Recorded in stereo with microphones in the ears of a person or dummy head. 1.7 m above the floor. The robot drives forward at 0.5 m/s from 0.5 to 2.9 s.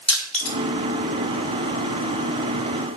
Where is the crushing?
Centre (ahead or behind), 2.5 m.